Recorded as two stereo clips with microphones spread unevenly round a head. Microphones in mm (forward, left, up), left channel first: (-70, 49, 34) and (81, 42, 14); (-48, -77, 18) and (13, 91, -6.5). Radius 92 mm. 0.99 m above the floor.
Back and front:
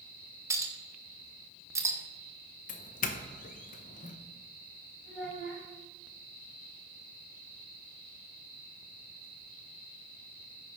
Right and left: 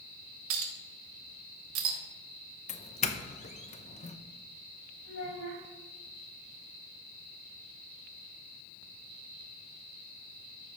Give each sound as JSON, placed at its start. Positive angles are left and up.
{"t": 0.5, "sound": "a clink", "azimuth_deg": 70, "distance_m": 1.5}
{"t": 2.7, "sound": "a doorbell", "azimuth_deg": -155, "distance_m": 0.8}
{"t": 5.0, "sound": "a child speaking", "azimuth_deg": -95, "distance_m": 5.5}